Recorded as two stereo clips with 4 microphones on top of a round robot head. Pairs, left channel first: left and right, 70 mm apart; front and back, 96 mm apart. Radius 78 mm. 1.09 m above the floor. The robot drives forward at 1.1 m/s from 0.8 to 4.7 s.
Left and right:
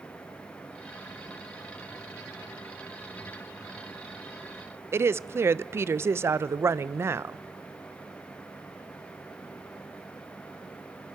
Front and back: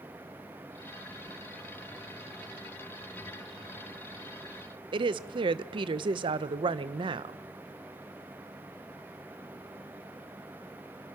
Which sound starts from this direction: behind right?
A woman speaking, at 4.9 s.